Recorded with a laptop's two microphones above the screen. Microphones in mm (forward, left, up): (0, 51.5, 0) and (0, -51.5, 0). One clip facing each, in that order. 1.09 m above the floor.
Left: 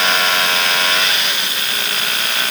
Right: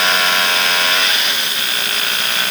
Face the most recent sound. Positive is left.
No sound to turn to.